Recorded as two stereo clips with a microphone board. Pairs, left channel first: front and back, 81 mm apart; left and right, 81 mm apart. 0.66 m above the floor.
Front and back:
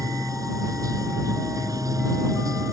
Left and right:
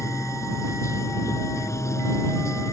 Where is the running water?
140° left.